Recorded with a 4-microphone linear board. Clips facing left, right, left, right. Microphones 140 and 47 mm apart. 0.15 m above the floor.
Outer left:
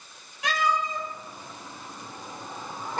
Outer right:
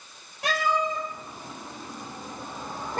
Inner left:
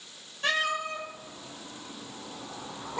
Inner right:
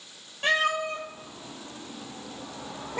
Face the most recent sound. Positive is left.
turn(degrees=-55)  # may be behind; listen again after turning